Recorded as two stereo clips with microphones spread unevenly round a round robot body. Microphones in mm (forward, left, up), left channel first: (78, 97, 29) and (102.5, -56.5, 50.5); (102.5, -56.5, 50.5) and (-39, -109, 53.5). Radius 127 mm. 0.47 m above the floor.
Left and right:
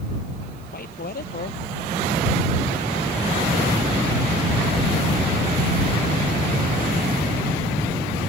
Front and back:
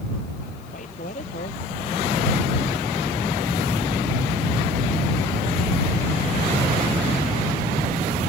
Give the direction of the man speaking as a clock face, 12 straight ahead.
9 o'clock.